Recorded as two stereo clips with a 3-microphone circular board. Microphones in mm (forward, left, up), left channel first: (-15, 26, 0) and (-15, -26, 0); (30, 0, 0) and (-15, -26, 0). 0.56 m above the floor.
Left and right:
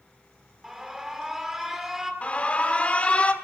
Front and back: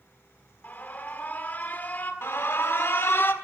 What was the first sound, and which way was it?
An alarm, 10° right.